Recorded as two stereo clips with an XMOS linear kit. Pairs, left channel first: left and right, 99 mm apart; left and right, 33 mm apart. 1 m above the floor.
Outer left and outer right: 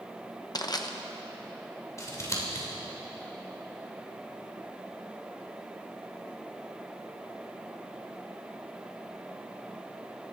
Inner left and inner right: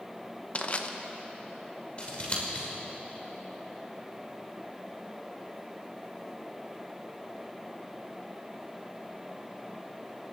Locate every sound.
0.6 s crushing: 40° left (ahead or behind), 0.8 m
2.0 s scissors: 30° left (ahead or behind), 2.5 m